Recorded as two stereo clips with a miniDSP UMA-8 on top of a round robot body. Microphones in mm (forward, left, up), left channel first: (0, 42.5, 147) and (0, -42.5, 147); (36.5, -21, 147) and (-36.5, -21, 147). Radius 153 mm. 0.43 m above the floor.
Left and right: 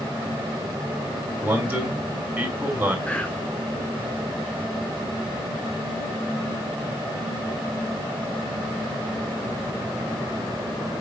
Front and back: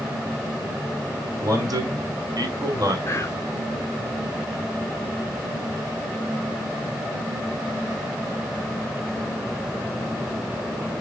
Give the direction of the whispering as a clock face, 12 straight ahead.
11 o'clock.